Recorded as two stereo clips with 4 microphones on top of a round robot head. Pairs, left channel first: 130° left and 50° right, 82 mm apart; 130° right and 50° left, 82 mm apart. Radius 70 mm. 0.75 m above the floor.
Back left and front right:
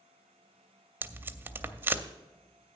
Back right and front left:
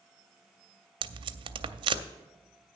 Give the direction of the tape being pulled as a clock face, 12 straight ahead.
11 o'clock.